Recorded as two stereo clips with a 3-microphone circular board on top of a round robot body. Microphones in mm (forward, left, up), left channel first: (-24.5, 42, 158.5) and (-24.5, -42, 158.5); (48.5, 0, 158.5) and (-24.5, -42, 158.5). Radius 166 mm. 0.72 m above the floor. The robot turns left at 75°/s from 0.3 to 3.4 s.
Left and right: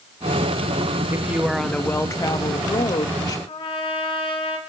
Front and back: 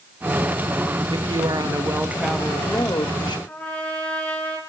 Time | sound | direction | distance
1.1 | a woman speaking | 145° right | 1.1 m
3.5 | a trumpet | 105° left | 2.5 m